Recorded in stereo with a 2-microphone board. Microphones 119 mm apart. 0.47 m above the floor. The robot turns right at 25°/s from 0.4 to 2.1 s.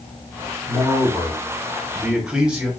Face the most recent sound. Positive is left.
turn(degrees=-10)